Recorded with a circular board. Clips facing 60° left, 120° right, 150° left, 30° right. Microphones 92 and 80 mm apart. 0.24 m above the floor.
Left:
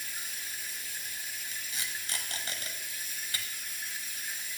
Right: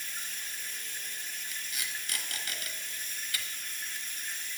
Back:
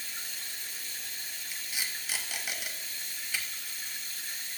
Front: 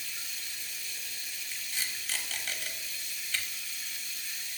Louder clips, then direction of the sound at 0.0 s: Even, back 1 dB; 140° left.